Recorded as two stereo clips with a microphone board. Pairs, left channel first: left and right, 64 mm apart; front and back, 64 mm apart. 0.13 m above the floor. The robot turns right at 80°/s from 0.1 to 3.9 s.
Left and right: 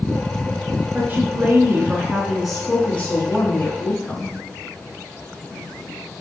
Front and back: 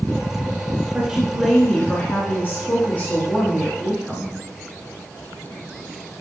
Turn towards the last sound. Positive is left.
turn(degrees=115)